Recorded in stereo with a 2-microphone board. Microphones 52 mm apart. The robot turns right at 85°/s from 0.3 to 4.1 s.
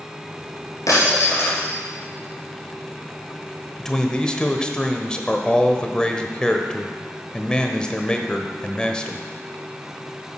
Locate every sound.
0.9 s breaking glass: 85° left, 3.5 m; by 1.7 s 155° left, 3.5 m
3.8 s a man speaking: 10° left (ahead or behind), 0.9 m; by 9.2 s 15° left (ahead or behind), 0.9 m